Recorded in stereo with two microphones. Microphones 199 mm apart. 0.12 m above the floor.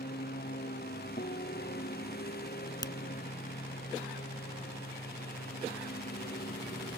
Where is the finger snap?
20° left (ahead or behind).